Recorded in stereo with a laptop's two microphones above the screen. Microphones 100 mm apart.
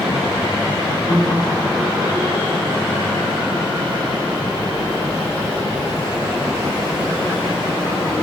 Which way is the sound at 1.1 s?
30° left (ahead or behind).